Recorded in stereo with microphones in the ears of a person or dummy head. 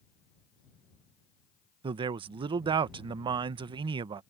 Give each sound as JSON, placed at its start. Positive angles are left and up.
{"t": 1.8, "sound": "a man speaking", "side_deg": -25}